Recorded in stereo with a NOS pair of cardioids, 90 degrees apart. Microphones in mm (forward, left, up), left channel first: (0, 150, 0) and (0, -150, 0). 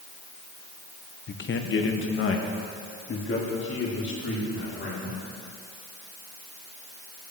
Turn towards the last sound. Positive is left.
turn(degrees=40)